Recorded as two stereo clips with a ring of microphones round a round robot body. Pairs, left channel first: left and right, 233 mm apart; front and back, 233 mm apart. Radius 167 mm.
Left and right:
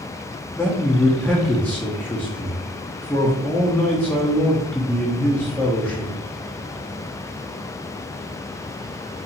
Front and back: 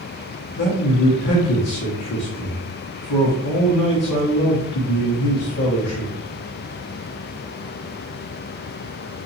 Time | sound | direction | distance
0.6 | a man speaking | 5° left | 1.1 m